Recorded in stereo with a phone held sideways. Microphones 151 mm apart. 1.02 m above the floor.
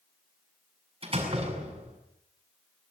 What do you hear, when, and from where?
1.0 s a door slam: 40° right (ahead or behind), 7 m